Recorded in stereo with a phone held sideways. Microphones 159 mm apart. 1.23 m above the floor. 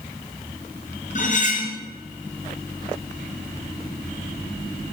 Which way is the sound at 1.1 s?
50° left (ahead or behind).